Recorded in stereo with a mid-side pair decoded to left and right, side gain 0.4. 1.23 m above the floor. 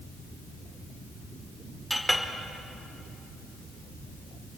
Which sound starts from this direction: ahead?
A clink, at 1.9 s.